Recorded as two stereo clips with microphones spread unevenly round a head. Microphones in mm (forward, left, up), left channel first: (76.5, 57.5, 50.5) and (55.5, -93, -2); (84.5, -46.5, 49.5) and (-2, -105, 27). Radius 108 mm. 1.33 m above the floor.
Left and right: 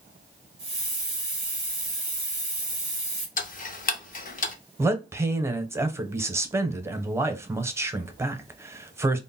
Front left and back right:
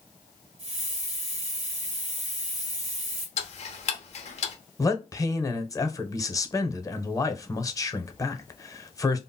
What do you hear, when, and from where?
0.6 s a hiss: 175° right, 1.0 m
3.4 s ticking: 40° left, 0.7 m
4.8 s a man speaking: 30° right, 0.8 m